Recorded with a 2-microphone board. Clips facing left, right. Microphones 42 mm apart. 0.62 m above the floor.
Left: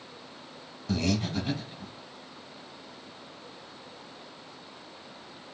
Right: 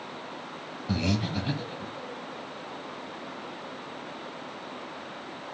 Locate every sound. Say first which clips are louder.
0.9 s breathing: even; 10° right (ahead or behind), 1.0 m